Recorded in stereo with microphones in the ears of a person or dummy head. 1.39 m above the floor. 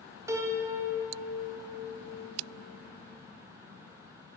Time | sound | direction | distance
0.3 | a piano | 15° right (ahead or behind) | 1.0 m